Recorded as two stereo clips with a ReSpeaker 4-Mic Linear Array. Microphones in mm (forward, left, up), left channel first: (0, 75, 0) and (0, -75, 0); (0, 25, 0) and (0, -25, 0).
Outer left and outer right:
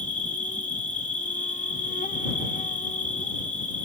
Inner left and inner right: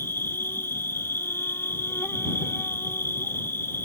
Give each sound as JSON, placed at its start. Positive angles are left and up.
{"t": 0.0, "sound": "an insect", "side_deg": 65}